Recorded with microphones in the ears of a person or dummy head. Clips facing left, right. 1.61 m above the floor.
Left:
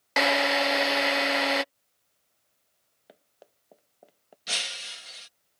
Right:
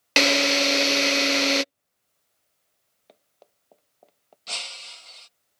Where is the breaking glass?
25° left (ahead or behind).